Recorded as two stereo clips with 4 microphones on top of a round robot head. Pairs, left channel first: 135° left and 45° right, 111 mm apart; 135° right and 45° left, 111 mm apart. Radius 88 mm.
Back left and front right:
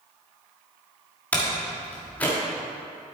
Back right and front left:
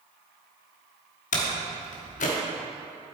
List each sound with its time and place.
1.3 s a door slam: 145° right, 1.3 m